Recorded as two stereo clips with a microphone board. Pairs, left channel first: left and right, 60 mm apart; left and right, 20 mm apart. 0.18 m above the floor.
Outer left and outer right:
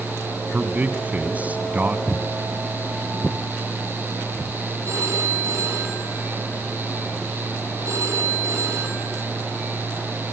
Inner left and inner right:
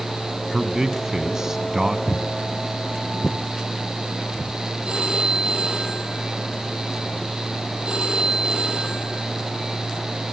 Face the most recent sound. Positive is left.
turn(degrees=-55)  # may be behind; listen again after turning